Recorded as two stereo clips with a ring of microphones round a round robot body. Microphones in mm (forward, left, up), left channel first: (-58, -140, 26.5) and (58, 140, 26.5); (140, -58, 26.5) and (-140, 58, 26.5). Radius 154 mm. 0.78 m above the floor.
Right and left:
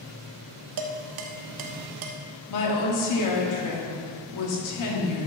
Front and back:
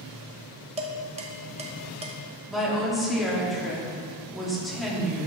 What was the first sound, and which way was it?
Dishes clattering, 85° left.